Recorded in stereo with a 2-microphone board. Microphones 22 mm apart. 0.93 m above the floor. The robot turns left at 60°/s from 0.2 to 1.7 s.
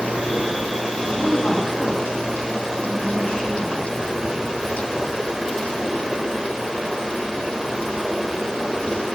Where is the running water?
70° right, 1.5 m; by 9.2 s 160° right, 1.5 m.